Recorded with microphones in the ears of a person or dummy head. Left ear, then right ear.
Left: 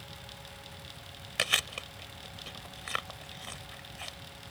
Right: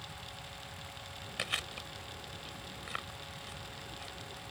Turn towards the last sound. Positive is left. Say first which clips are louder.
# left 8 dB
turn(degrees=20)  # may be behind; listen again after turning